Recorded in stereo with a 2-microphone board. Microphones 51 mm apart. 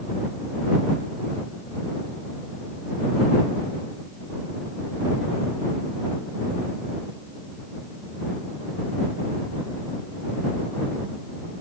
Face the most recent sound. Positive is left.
No sound to turn to.